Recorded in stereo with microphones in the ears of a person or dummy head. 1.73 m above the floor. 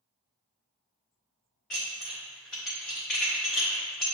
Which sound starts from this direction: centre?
Dishes clattering, at 1.7 s.